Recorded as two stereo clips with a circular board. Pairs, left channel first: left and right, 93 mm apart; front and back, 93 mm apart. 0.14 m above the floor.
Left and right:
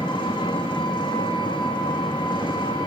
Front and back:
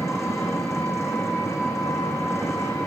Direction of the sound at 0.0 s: 55° left.